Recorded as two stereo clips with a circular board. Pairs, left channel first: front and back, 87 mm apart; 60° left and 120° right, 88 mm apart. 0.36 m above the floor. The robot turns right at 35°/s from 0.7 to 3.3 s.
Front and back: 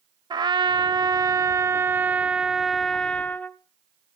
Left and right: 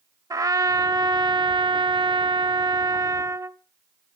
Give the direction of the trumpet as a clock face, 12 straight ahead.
5 o'clock.